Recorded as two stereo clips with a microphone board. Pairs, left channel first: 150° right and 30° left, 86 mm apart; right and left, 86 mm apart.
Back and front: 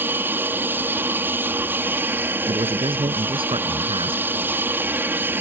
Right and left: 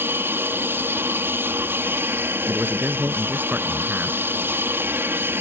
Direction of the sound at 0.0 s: 65° left.